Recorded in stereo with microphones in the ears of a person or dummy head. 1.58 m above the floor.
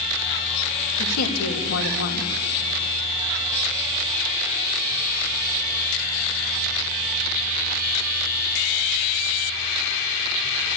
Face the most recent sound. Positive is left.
turn(degrees=85)